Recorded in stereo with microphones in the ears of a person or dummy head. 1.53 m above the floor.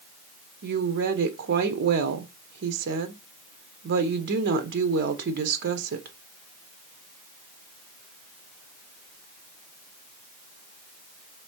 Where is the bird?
I don't hear a bird.